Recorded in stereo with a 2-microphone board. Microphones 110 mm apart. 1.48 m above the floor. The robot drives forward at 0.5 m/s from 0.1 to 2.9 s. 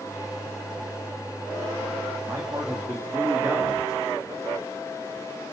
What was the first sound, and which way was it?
A man speaking, 30° right (ahead or behind).